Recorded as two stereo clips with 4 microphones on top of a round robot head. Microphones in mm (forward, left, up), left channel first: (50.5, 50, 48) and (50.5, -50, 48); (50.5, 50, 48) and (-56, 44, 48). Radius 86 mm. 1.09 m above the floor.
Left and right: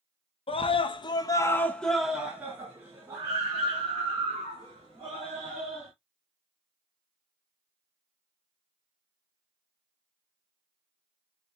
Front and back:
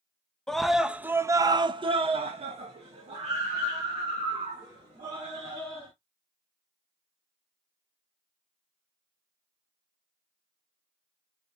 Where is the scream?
90° left, 0.8 m; by 5.9 s 135° right, 2.5 m.